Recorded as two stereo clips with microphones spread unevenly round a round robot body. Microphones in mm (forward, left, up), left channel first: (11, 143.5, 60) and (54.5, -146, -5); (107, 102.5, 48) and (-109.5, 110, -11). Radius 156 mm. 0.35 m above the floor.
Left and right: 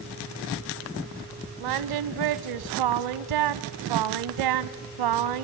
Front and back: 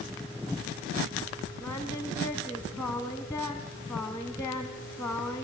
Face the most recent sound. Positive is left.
turn(degrees=-85)